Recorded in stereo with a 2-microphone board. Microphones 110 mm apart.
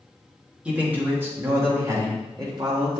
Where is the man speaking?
10° right (ahead or behind), 2.0 m; by 3.0 s 45° right (ahead or behind), 2 m.